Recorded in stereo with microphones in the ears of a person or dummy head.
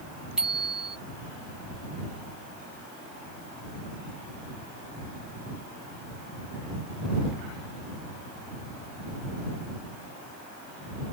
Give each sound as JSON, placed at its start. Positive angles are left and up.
{"t": 0.4, "sound": "a bicycle bell", "side_deg": -5}